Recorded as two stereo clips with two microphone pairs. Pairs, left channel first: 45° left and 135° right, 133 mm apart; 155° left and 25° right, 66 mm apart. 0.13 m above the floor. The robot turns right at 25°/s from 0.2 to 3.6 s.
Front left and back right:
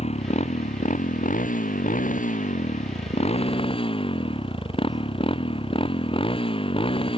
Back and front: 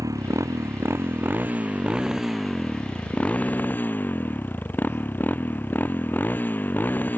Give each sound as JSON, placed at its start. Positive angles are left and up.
{"t": 0.0, "sound": "a motorcycle", "azimuth_deg": 5}